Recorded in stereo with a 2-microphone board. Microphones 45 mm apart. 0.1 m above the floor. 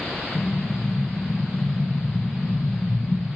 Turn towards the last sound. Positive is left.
turn(degrees=65)  # may be behind; listen again after turning